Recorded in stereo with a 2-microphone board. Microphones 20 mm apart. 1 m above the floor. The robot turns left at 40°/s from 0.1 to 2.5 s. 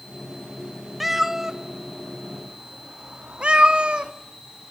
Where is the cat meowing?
10° right (ahead or behind), 0.7 m; by 4.1 s 60° right (ahead or behind), 0.7 m.